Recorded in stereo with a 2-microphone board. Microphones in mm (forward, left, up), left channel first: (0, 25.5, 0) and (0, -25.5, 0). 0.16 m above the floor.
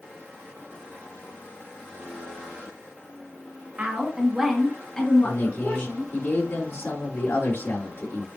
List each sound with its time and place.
3.8 s a woman speaking: 35° right (ahead or behind), 1.7 m; by 6.1 s 50° left (ahead or behind), 2.5 m
5.2 s a man speaking: 60° left (ahead or behind), 3 m